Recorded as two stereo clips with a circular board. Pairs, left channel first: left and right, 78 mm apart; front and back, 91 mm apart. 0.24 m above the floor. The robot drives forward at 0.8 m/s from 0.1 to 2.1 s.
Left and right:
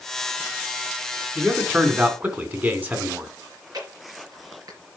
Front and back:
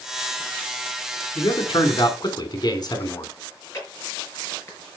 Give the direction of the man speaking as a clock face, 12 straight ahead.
1 o'clock.